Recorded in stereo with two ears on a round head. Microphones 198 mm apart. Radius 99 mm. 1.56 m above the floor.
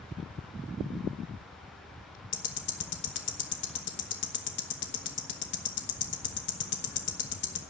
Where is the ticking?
55° left (ahead or behind), 1.1 m.